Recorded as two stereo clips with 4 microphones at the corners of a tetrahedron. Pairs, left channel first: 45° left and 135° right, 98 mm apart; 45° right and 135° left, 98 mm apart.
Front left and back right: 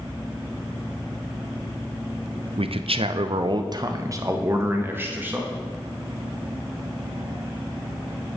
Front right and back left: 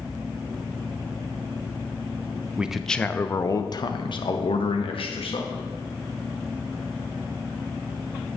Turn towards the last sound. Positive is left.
turn(degrees=-65)